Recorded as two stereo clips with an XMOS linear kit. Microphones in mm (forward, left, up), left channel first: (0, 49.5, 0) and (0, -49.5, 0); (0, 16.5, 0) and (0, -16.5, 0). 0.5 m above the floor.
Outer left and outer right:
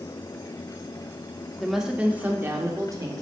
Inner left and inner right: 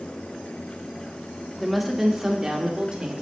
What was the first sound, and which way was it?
A woman speaking, centre (ahead or behind).